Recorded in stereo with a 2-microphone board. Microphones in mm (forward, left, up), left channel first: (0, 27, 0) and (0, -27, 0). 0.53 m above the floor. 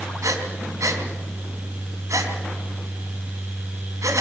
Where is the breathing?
80° right, 3.5 m.